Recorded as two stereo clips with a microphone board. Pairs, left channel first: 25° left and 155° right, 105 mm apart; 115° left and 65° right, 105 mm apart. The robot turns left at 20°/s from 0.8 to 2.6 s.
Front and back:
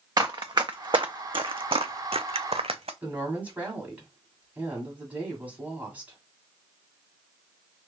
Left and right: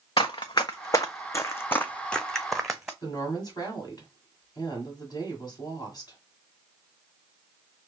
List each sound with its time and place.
0.2 s running footsteps: 150° left, 1.1 m; by 2.9 s 150° right, 0.9 m
3.0 s a woman speaking: 135° left, 2 m